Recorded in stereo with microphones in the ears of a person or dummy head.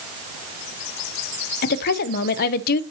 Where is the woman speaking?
55° left (ahead or behind), 0.7 m.